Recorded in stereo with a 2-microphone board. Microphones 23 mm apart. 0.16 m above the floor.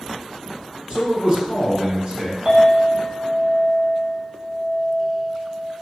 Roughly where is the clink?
Right.